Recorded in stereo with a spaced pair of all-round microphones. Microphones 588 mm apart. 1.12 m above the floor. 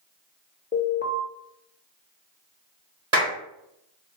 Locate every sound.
0.7 s an alarm: 15° left (ahead or behind), 0.6 m
3.1 s a clap: 60° right (ahead or behind), 1.3 m